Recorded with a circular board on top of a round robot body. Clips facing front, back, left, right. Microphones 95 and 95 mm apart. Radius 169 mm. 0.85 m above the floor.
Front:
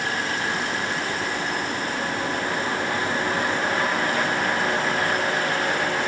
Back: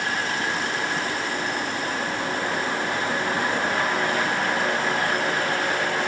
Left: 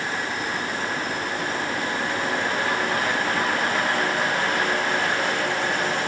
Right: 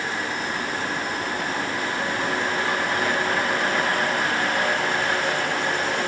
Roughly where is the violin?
No violin in this recording.